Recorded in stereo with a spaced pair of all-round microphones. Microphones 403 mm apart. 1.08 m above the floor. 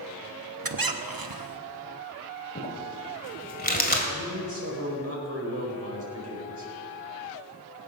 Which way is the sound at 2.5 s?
20° left (ahead or behind).